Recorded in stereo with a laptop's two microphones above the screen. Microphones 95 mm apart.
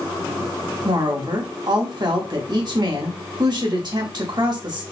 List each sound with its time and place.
0.8 s a woman speaking: 50° right (ahead or behind), 1.5 m